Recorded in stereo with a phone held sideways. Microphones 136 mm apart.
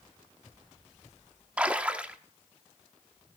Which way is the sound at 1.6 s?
10° right (ahead or behind).